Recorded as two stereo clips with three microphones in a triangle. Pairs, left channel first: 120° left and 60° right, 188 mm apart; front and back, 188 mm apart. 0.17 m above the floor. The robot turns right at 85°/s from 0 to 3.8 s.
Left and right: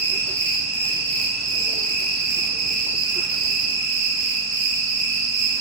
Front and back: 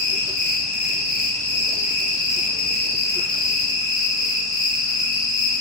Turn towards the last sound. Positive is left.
turn(degrees=65)